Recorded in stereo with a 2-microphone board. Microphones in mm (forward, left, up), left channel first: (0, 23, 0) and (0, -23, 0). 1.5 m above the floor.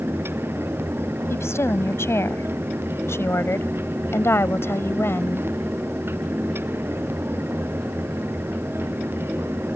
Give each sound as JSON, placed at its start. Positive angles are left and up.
{"t": 1.3, "sound": "a woman speaking", "side_deg": 70}